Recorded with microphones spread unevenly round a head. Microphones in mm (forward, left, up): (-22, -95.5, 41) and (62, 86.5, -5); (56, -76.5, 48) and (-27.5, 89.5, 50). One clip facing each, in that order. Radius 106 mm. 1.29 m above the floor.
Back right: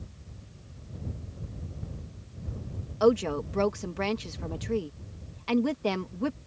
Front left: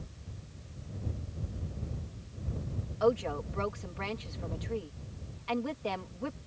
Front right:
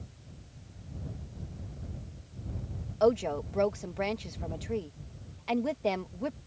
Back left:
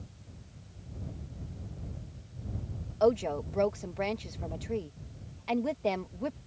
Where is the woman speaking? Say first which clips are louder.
Back right 6 dB, even; 155° right.